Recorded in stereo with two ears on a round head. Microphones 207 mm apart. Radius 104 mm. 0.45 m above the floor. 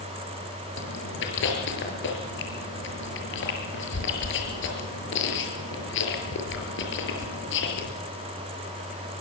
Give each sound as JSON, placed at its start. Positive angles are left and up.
{"t": 0.8, "sound": "chewing", "side_deg": 55, "distance_m": 6.5}